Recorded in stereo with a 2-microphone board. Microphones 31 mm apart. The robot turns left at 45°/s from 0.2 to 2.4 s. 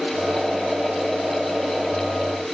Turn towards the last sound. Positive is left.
No sound to turn to.